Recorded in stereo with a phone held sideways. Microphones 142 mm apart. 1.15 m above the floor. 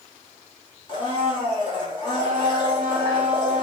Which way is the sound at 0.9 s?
35° left (ahead or behind).